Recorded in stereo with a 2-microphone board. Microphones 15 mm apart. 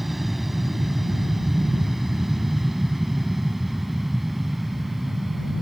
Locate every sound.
0.0 s an aircraft: 10° right (ahead or behind); by 5.6 s 15° right (ahead or behind)